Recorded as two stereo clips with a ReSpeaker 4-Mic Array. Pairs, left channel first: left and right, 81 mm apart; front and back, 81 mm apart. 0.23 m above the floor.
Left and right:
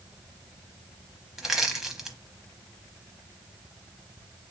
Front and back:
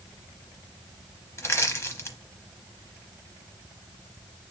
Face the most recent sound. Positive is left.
turn(degrees=-10)